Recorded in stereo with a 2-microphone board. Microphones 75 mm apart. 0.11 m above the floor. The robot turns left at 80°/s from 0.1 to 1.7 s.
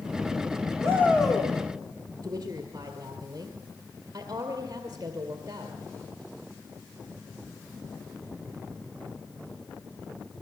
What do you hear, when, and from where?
0.8 s a shout: 145° right, 6 m; by 1.5 s 165° left, 6 m
2.2 s a woman speaking: 40° right (ahead or behind), 2.0 m